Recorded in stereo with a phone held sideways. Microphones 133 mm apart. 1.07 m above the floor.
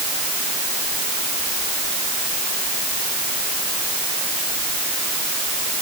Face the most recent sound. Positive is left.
No sound to turn to.